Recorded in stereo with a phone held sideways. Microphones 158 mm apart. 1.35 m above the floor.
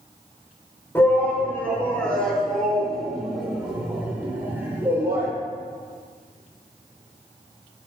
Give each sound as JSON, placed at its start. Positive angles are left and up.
{"t": 0.9, "sound": "a shout", "side_deg": 15, "distance_m": 5.0}